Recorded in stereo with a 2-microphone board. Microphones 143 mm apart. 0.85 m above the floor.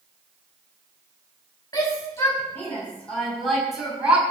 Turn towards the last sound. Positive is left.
turn(degrees=-10)  # may be behind; listen again after turning